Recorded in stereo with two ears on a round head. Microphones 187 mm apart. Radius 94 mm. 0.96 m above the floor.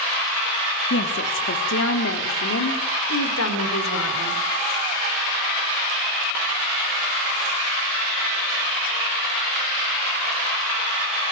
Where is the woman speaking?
60° left (ahead or behind), 2 m; by 4.4 s 80° left, 4.5 m.